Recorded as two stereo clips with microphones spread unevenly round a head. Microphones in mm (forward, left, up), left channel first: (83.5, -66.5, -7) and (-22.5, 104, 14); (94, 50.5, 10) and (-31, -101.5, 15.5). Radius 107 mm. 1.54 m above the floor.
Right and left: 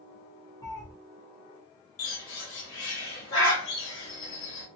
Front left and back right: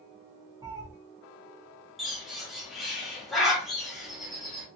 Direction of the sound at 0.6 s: 115° right.